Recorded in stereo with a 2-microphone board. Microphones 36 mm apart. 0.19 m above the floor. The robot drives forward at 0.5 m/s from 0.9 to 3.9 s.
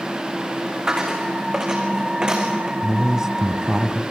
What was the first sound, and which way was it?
A dropped coin, 20° right (ahead or behind).